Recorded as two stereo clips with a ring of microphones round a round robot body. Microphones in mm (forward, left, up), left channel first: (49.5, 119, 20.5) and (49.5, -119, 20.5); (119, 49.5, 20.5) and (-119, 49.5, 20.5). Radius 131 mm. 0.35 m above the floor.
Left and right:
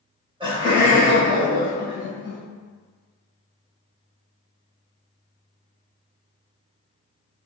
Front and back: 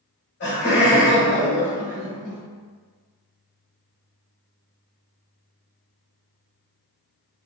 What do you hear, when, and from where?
0.4 s laughter: 25° right, 1.5 m